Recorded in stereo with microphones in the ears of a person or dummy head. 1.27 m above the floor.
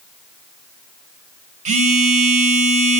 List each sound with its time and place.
1.6 s a phone buzzing: 35° right (ahead or behind), 1.8 m